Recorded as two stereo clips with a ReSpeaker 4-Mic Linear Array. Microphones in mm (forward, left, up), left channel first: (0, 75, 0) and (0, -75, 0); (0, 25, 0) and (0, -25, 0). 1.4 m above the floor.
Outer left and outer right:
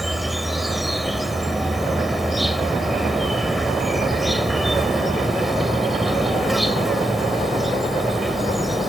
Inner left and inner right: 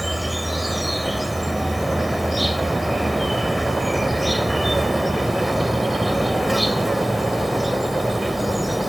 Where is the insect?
Centre (ahead or behind).